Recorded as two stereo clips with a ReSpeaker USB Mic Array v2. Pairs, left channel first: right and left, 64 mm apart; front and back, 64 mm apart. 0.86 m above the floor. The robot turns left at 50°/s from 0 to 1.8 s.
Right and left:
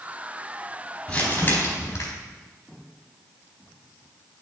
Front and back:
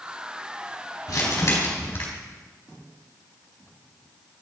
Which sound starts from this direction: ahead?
Crumpling, at 1.1 s.